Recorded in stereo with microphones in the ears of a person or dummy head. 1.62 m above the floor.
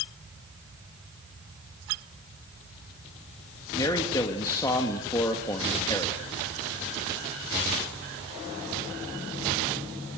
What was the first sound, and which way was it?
A man speaking, 20° left (ahead or behind).